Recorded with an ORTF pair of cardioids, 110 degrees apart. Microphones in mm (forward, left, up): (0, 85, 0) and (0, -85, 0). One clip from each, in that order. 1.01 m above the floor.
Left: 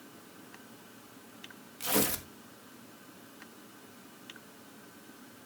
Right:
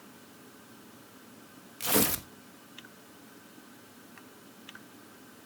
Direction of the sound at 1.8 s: 20° right.